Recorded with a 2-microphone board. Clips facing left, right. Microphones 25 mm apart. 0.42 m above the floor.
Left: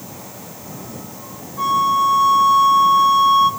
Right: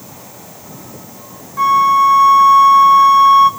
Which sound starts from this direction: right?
A flute, at 1.6 s.